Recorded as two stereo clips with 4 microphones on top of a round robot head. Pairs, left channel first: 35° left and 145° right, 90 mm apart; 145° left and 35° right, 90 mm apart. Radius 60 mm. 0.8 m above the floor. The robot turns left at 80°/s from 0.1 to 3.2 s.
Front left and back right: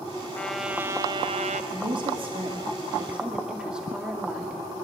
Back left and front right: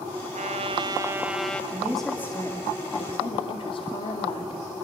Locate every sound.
0.3 s a trumpet: 40° right, 1.2 m; by 1.6 s 140° right, 1.2 m
1.7 s a woman speaking: 105° right, 2 m; by 4.6 s 135° left, 2 m